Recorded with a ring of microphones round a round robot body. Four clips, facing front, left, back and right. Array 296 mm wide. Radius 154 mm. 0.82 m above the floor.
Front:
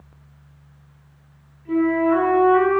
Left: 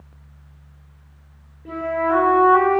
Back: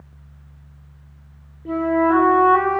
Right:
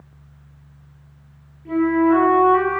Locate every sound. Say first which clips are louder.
1.6 s a flute: right 5 dB, even; 155° left, 6 m